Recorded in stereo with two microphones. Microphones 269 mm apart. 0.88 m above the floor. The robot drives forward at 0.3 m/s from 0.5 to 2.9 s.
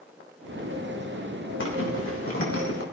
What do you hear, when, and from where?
1.6 s a zipper: 50° left (ahead or behind), 3.5 m; by 2.8 s 55° left (ahead or behind), 3 m